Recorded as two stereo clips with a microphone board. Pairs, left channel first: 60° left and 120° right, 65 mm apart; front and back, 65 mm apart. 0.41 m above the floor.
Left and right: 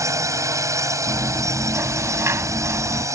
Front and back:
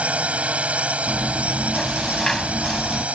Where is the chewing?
85° right.